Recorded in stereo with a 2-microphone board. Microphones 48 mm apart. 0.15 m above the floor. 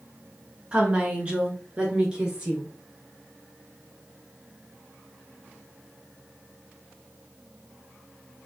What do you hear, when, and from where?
0.7 s a woman speaking: 25° right (ahead or behind), 1.4 m; by 2.7 s 20° right (ahead or behind), 2 m